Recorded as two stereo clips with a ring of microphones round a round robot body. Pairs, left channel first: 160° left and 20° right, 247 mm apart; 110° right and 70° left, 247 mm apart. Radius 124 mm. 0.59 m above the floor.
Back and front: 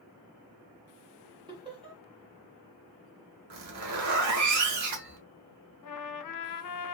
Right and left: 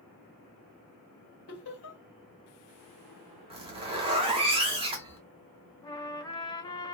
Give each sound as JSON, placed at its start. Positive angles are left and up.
{"t": 1.5, "sound": "laughter", "azimuth_deg": -90, "distance_m": 1.6}
{"t": 3.5, "sound": "a zipper", "azimuth_deg": 0, "distance_m": 1.2}
{"t": 5.8, "sound": "a trumpet", "azimuth_deg": 175, "distance_m": 0.6}